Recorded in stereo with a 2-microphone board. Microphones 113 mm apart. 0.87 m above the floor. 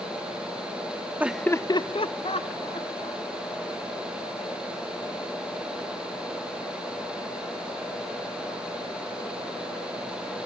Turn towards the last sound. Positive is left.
turn(degrees=80)